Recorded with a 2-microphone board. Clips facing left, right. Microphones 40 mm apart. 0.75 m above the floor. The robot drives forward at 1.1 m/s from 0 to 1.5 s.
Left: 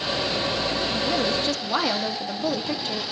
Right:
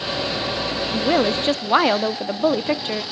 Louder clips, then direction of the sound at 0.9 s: Right 8 dB; 55° right (ahead or behind).